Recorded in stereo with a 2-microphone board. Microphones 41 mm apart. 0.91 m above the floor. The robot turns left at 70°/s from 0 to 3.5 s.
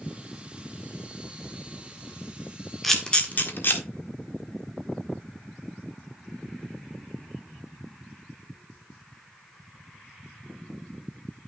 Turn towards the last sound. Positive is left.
turn(degrees=50)  # may be behind; listen again after turning